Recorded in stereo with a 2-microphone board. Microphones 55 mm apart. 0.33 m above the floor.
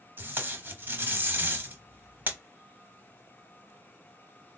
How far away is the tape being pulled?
About 0.7 m.